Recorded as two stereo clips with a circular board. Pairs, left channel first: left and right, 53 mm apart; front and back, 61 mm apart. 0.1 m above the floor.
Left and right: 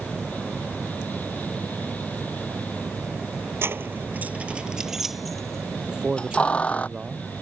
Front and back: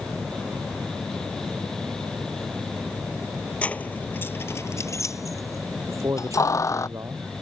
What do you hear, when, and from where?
3.6 s keys jangling: 65° right; by 6.9 s 30° left
5.9 s a man speaking: 160° right